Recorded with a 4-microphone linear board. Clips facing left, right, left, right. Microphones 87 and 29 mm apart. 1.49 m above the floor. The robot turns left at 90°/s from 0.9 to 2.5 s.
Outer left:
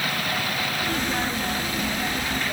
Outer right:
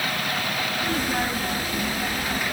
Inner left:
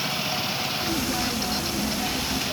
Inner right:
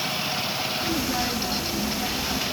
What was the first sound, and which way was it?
Only background noise.